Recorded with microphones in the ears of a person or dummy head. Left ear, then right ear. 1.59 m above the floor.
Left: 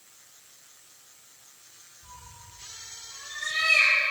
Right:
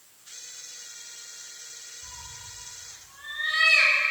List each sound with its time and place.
2.0 s a cat meowing: 45° right (ahead or behind), 4.5 m; by 4.0 s 30° right (ahead or behind), 4.5 m